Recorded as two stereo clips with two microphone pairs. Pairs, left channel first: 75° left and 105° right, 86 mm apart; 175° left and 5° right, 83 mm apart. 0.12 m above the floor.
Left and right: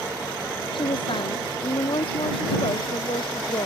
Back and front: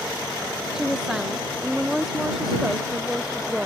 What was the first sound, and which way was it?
A woman speaking, 80° left.